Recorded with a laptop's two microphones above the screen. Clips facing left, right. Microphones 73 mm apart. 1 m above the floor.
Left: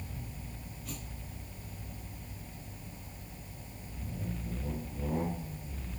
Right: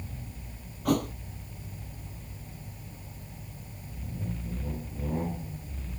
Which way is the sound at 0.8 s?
70° right (ahead or behind).